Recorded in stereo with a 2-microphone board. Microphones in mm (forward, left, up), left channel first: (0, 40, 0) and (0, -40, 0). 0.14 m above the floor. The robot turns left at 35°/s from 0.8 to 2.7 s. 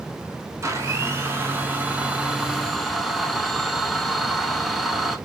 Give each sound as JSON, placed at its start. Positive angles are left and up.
{"t": 0.6, "sound": "a blender", "azimuth_deg": -115, "distance_m": 0.5}